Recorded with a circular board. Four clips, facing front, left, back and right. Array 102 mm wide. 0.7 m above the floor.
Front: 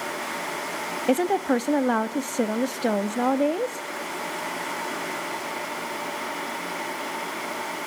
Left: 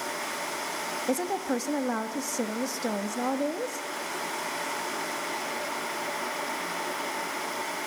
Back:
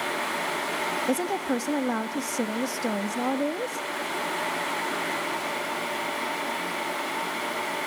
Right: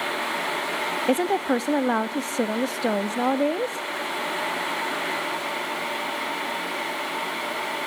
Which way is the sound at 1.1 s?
45° right.